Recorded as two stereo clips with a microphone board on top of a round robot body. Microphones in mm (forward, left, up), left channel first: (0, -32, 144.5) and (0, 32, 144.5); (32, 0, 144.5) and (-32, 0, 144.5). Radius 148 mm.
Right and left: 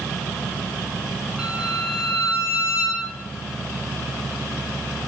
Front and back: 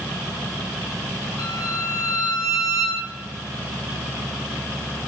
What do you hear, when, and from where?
1.4 s a violin: 10° left, 1.8 m